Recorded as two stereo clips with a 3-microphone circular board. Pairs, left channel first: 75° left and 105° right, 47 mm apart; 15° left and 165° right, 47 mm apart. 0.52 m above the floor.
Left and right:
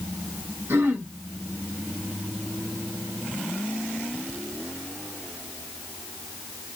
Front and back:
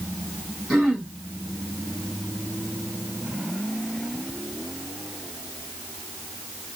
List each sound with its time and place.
0.7 s throat clearing: 80° right, 1.5 m